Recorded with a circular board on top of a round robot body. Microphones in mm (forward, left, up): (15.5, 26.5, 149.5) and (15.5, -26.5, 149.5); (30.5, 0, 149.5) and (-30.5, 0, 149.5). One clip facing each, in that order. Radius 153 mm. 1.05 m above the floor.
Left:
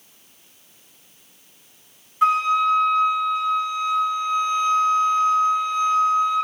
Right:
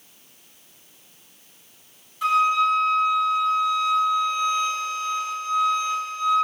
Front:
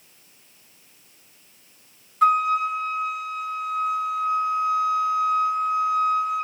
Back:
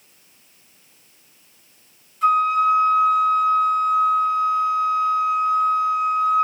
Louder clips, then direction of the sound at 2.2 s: Left 1 dB, back 2 dB; 40° left.